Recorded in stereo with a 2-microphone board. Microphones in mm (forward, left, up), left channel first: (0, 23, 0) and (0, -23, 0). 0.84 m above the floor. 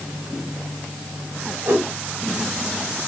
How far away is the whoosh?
About 1.2 m.